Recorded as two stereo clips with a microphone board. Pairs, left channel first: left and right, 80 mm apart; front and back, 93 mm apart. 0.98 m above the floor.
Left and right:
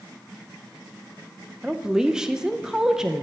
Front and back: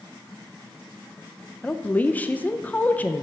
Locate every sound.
1.6 s a woman speaking: 25° right, 0.5 m